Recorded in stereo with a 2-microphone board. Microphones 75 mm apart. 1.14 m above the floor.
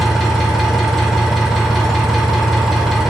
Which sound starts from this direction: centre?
An engine running, at 0.0 s.